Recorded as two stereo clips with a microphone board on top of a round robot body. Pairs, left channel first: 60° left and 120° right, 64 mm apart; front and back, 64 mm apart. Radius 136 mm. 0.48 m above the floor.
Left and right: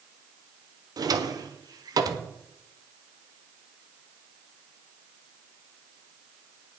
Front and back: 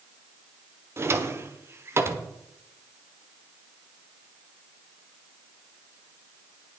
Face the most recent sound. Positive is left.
turn(degrees=-130)